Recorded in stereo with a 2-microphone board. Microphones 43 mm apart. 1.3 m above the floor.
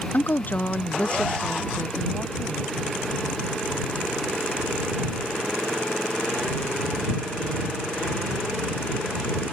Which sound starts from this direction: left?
A woman speaking, at 0.1 s.